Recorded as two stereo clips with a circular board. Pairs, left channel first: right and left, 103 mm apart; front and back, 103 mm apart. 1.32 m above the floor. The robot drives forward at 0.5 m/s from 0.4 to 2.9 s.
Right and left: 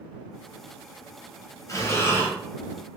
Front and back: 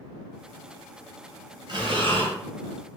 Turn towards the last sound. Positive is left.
turn(degrees=-165)